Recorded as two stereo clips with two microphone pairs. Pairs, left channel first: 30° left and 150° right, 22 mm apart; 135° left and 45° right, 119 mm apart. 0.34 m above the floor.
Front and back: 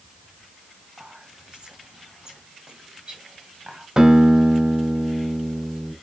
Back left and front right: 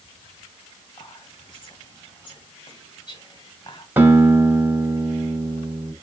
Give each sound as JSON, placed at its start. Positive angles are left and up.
{"t": 1.0, "sound": "whispering", "azimuth_deg": 175, "distance_m": 1.5}
{"t": 4.0, "sound": "a guitar", "azimuth_deg": -110, "distance_m": 2.0}